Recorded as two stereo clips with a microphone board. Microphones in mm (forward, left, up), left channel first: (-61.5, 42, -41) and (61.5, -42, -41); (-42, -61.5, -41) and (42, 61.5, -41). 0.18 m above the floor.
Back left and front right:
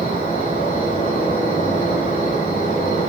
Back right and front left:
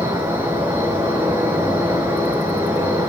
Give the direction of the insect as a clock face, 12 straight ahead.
8 o'clock.